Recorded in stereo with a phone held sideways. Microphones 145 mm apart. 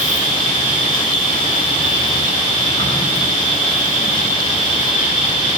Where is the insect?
35° left (ahead or behind), 9 m.